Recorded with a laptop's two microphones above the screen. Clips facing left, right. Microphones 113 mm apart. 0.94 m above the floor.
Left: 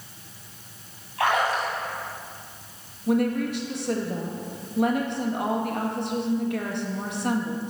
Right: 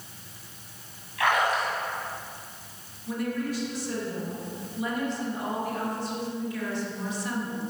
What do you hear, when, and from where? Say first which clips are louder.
1.2 s a splash: left 1 dB; 35° left (ahead or behind), 2.5 m
3.1 s a woman speaking: left 7 dB; 65° left (ahead or behind), 1.3 m